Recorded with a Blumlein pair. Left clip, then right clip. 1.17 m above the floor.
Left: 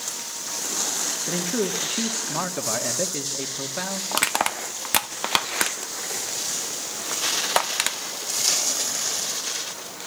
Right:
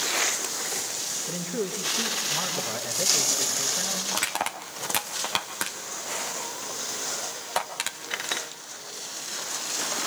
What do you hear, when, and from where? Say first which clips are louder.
1.3 s a man speaking: left 5 dB; 25° left, 2.5 m
4.1 s crushing: left 5 dB; 20° left, 1.3 m